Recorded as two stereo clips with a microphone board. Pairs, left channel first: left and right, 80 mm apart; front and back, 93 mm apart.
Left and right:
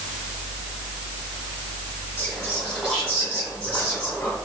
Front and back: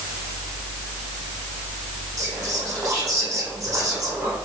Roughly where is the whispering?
Behind.